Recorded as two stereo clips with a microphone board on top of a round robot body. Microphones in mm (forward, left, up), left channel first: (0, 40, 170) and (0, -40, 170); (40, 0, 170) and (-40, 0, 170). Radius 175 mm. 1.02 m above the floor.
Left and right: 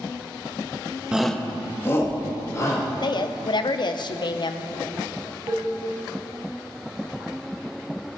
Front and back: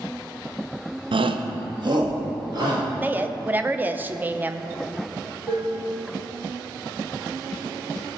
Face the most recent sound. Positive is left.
turn(degrees=-125)